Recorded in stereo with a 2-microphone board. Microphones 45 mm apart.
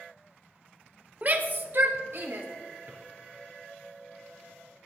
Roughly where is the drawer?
Right.